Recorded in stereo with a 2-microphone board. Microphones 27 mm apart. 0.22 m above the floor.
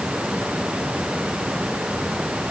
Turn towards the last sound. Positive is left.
No sound to turn to.